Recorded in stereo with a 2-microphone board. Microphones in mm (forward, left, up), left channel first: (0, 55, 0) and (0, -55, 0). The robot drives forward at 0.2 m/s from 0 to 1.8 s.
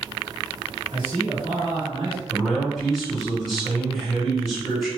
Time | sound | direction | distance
0.9 | a man speaking | 45° right (ahead or behind) | 1.8 m
2.3 | a man speaking | 5° right (ahead or behind) | 1.8 m